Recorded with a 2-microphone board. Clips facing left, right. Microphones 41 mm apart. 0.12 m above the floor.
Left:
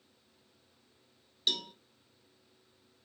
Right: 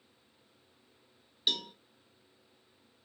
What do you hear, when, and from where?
1.5 s a cowbell: 10° right (ahead or behind), 0.7 m